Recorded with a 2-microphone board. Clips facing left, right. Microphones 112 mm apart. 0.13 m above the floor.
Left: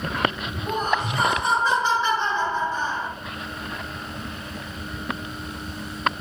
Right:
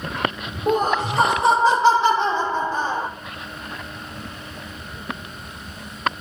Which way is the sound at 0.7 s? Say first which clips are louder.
Right 5 dB; 70° right (ahead or behind).